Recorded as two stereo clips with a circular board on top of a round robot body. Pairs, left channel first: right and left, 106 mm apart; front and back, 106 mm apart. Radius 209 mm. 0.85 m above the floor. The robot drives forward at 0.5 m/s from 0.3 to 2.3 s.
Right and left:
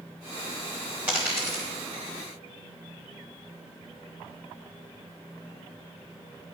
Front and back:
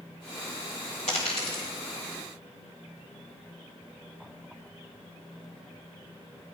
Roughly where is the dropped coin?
Ahead.